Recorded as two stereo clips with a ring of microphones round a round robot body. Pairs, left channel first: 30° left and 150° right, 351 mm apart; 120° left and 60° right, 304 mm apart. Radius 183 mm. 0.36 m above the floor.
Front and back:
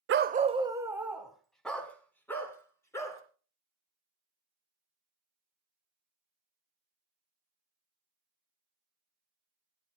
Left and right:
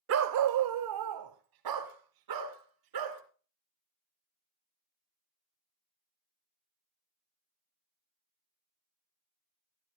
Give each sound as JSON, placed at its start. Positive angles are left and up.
{"t": 0.1, "sound": "a dog barking", "azimuth_deg": -100, "distance_m": 0.6}